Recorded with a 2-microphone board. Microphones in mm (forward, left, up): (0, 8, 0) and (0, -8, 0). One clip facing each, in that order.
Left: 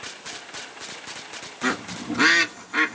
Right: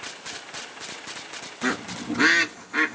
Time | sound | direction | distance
1.6 | a bird | 25° left (ahead or behind) | 1.2 m